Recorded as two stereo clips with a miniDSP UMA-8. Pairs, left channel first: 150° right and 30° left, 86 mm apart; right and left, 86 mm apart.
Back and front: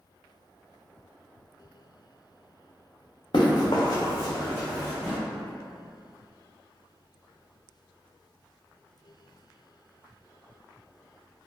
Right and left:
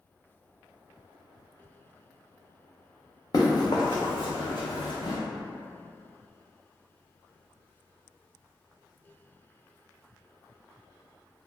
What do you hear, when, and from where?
3.3 s running footsteps: 135° right, 0.8 m; by 5.2 s 60° right, 0.8 m